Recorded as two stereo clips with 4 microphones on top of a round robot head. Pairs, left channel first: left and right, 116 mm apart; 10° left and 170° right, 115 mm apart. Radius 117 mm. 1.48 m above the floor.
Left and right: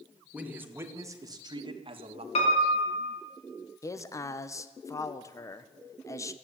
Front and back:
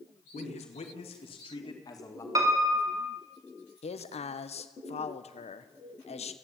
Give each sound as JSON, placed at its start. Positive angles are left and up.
{"t": 0.3, "sound": "a man speaking", "azimuth_deg": -15, "distance_m": 3.0}
{"t": 2.4, "sound": "a piano", "azimuth_deg": 130, "distance_m": 3.5}
{"t": 3.8, "sound": "a man speaking", "azimuth_deg": 30, "distance_m": 1.4}